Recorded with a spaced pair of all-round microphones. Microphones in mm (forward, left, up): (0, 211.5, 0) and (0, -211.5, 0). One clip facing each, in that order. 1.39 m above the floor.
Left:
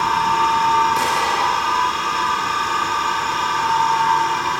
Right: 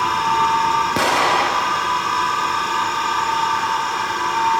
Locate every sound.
0.9 s an explosion: 80° right, 0.9 m